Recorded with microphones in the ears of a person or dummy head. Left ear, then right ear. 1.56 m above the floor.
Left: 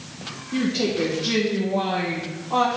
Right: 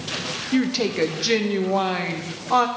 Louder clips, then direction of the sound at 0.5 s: Even; 45° right (ahead or behind).